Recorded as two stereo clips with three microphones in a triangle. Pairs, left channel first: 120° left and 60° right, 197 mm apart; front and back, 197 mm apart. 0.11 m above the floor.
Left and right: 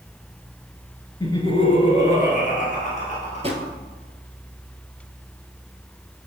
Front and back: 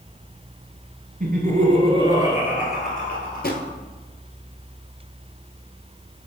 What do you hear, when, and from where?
1.2 s laughter: 175° right, 1.6 m; by 3.7 s 75° left, 2.5 m
3.4 s a drawer: 10° right, 1.1 m